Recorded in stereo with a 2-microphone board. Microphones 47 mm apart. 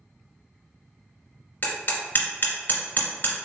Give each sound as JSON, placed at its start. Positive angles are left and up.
{"t": 1.6, "sound": "hammering", "side_deg": 45, "distance_m": 2.0}